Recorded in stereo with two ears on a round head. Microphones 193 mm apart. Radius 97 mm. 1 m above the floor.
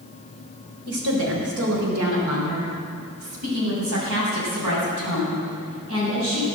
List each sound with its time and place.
0.9 s a woman speaking: 80° right, 4 m